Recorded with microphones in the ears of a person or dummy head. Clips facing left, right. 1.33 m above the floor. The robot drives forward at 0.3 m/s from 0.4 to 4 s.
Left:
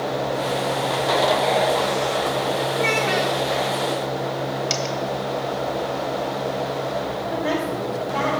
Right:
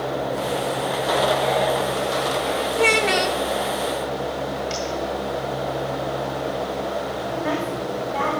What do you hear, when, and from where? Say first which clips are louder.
2.8 s a child speaking: right 2 dB; 45° right (ahead or behind), 0.6 m; by 3.4 s 50° right (ahead or behind), 0.6 m
4.7 s a dropped coin: left 1 dB; 45° left (ahead or behind), 1.6 m
7.3 s a woman speaking: left 2 dB; centre (ahead or behind), 4.5 m